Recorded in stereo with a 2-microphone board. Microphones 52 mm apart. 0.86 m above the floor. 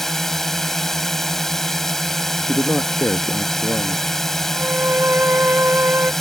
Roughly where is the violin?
Right.